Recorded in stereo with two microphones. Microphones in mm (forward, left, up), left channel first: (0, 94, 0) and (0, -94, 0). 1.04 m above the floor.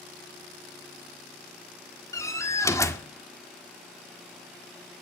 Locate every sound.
2.1 s a door slam: 15° left (ahead or behind), 1.8 m